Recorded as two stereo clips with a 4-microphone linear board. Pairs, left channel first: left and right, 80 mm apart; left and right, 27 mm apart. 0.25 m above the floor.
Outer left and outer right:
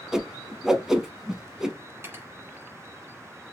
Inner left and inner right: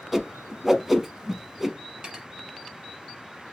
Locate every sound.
0.1 s a whoosh: 5° right (ahead or behind), 0.7 m
2.0 s cutlery clinking: 30° right (ahead or behind), 1.5 m